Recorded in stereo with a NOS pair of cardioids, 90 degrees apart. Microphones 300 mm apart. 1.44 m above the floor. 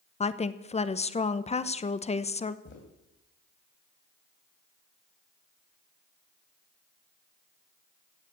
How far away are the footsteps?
About 4.5 m.